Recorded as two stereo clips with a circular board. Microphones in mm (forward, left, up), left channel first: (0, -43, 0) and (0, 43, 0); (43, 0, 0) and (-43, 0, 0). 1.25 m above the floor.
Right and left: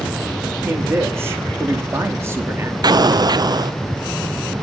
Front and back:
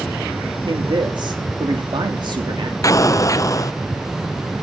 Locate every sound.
0.7 s a man speaking: 150° left, 3 m
2.8 s an explosion: 50° left, 0.6 m